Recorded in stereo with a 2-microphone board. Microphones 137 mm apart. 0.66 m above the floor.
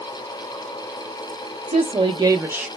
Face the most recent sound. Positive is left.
turn(degrees=-10)  # may be behind; listen again after turning